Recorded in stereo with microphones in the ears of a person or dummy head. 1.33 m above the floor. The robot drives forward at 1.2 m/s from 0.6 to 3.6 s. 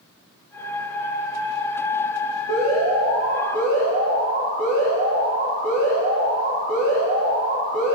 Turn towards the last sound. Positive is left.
turn(degrees=-35)  # may be behind; listen again after turning